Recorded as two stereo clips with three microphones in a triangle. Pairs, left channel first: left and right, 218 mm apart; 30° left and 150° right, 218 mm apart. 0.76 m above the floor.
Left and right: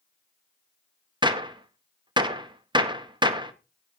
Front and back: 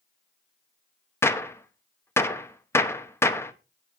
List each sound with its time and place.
1.2 s a gunshot: 40° right, 0.9 m